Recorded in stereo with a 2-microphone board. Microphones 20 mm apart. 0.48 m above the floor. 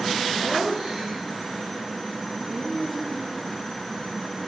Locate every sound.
0.4 s laughter: 20° right (ahead or behind), 6.5 m; by 3.5 s 5° right (ahead or behind), 6.5 m